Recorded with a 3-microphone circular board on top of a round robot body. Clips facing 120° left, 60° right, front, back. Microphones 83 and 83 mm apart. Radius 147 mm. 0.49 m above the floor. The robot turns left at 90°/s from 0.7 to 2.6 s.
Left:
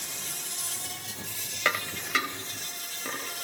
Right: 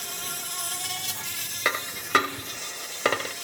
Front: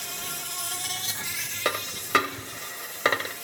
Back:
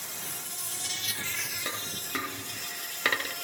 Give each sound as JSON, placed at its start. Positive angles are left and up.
{"t": 0.0, "sound": "an insect", "azimuth_deg": -25, "distance_m": 1.0}
{"t": 1.6, "sound": "a dropped coin", "azimuth_deg": 25, "distance_m": 0.8}